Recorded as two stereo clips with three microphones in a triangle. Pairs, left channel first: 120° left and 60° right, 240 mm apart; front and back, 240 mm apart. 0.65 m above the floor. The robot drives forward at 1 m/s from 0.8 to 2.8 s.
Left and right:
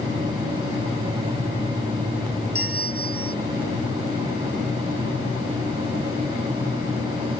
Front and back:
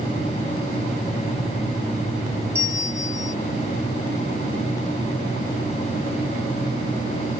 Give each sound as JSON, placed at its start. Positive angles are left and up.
{"t": 2.5, "sound": "a bell", "azimuth_deg": -100}